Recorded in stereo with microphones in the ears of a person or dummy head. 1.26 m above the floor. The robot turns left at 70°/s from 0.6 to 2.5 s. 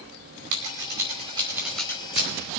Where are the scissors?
75° right (ahead or behind), 2.5 m; by 2.3 s 35° left (ahead or behind), 2.5 m.